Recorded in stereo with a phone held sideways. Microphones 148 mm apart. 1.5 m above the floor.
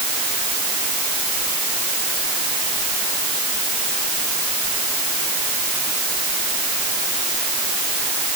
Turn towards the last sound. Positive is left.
No sound to turn to.